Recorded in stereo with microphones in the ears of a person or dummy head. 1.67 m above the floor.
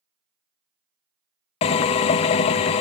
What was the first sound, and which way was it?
A drill, 30° left (ahead or behind).